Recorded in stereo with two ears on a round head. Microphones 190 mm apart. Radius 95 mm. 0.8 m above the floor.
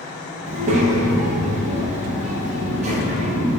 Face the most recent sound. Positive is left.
turn(degrees=-35)  # may be behind; listen again after turning